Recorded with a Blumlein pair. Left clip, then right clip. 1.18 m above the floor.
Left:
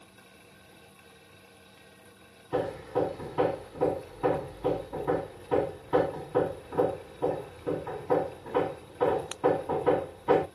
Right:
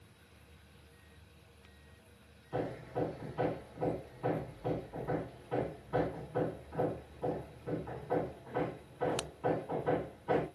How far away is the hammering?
About 2.5 m.